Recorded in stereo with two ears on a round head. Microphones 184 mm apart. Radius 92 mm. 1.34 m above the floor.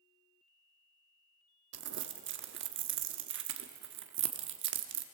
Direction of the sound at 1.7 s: 60° right (ahead or behind).